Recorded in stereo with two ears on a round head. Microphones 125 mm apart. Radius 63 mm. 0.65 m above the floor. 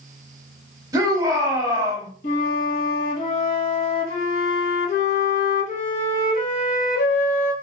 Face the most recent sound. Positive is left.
turn(degrees=55)  # may be behind; listen again after turning